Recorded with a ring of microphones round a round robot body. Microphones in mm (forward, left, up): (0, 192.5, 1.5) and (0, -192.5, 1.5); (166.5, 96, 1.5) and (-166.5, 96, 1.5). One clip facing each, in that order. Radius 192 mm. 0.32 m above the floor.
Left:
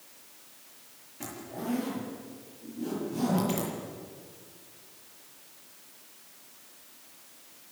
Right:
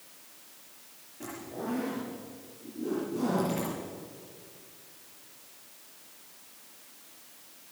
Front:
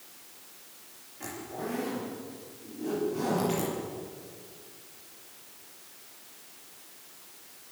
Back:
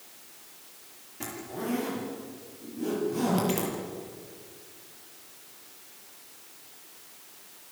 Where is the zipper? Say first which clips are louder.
Even, back 2 dB; 150° left, 8 m.